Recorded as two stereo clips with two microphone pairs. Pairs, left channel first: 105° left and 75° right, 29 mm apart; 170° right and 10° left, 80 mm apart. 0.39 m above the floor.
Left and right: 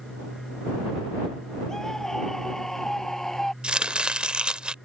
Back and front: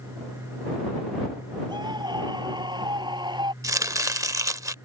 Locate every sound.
1.7 s a scream: 35° left; by 3.5 s 30° left
3.6 s chopping: 25° right